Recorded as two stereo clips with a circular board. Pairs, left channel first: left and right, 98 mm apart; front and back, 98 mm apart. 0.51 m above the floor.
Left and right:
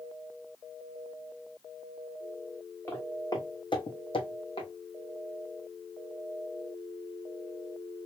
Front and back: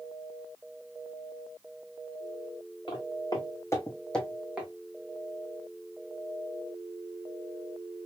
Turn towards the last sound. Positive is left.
turn(degrees=105)